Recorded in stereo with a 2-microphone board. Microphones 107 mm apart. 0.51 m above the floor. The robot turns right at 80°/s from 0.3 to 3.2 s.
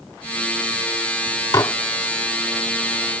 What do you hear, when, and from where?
1.5 s dishes clattering: 35° left (ahead or behind); by 1.8 s 30° left (ahead or behind)